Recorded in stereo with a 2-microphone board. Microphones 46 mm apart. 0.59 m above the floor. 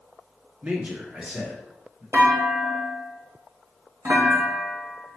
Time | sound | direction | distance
0.6 | a man speaking | 25° right (ahead or behind) | 0.9 m
2.1 | a clunk | 75° right (ahead or behind) | 1.1 m